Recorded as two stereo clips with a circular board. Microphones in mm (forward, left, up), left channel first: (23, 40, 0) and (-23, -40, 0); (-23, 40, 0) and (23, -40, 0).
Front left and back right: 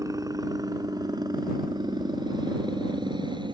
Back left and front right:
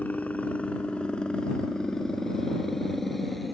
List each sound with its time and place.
0.0 s a helicopter: 170° right; by 3.5 s 150° right